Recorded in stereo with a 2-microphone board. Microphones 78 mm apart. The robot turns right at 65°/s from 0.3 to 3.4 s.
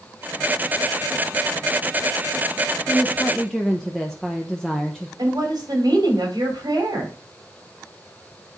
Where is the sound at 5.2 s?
65° right (ahead or behind), 3 m.